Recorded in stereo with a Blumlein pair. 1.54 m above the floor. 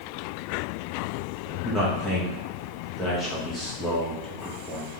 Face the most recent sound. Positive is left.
turn(degrees=5)